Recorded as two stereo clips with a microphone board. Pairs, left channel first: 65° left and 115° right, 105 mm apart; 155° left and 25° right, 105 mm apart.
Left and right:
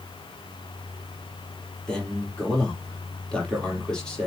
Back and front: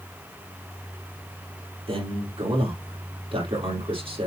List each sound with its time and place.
1.9 s a man speaking: 15° right, 3.5 m